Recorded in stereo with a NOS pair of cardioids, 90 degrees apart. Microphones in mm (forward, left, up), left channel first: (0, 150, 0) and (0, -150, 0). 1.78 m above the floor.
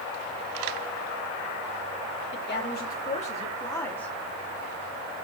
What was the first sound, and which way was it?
A woman speaking, 40° left.